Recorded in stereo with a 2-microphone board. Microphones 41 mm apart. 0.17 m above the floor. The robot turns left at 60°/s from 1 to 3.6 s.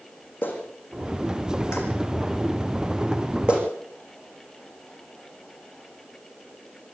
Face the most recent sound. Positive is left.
turn(degrees=-30)  # may be behind; listen again after turning